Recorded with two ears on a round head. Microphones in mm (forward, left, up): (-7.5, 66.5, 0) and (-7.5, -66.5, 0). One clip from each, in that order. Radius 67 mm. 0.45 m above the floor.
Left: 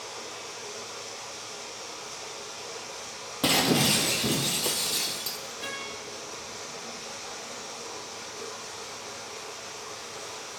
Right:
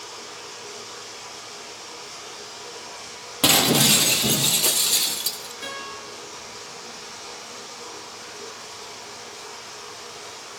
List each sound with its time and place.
0.0 s running water: 15° left (ahead or behind), 6.5 m
3.4 s breaking glass: 30° right (ahead or behind), 0.9 m
5.6 s a guitar: 15° right (ahead or behind), 7 m